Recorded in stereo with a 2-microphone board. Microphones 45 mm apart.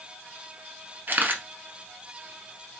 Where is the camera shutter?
50° right (ahead or behind), 1.2 m.